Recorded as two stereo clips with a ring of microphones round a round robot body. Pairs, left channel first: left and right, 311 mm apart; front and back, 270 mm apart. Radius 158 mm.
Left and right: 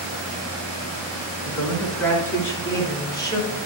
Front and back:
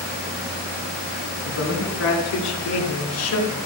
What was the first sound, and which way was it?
A man speaking, 5° left.